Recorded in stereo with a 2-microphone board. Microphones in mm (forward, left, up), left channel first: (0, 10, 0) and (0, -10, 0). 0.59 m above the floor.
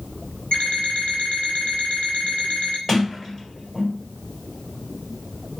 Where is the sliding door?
25° left (ahead or behind), 2.5 m.